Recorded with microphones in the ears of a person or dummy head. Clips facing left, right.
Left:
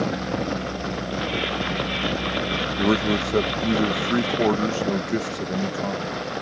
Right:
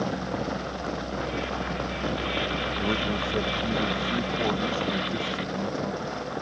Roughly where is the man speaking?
Left.